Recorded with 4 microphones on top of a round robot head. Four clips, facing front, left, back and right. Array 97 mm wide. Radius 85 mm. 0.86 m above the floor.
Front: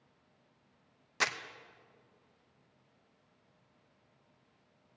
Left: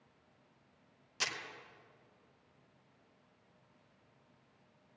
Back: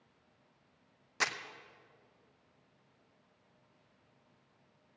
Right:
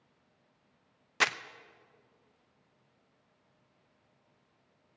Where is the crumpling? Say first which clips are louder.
Right 11 dB, front 1 dB; 90° right, 0.6 m.